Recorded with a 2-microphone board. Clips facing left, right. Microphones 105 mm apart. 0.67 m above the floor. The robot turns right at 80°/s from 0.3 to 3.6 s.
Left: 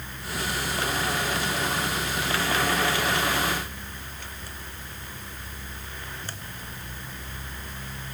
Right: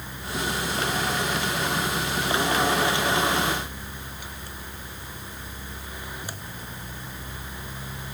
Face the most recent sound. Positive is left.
No sound to turn to.